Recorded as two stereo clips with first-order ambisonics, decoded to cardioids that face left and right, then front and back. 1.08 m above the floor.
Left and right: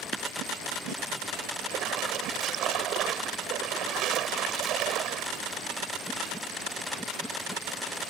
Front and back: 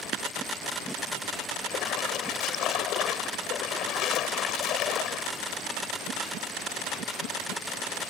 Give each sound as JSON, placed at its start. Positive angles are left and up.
{"t": 0.1, "sound": "tapping", "azimuth_deg": -145}
{"t": 1.6, "sound": "a splash", "azimuth_deg": -45}